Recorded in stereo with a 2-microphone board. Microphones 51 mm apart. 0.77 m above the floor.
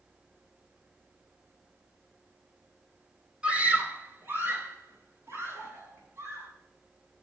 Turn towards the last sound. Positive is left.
turn(degrees=-65)  # may be behind; listen again after turning